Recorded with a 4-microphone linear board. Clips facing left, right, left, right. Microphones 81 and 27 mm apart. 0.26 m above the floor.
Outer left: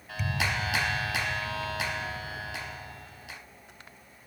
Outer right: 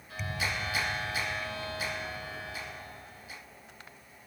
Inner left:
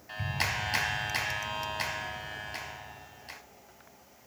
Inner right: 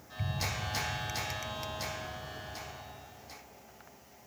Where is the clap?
80° left, 3.5 m.